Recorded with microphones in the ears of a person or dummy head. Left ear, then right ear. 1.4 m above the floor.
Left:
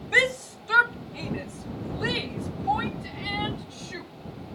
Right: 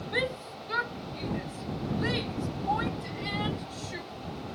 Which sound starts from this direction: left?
A shout, at 0.1 s.